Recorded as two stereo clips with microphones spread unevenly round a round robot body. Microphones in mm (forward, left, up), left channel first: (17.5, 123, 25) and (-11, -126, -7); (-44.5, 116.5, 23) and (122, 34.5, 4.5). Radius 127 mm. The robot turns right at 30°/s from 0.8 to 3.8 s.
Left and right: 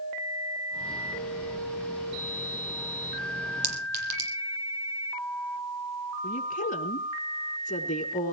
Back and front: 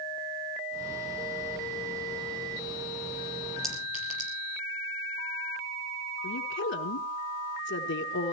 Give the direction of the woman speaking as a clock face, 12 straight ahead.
7 o'clock.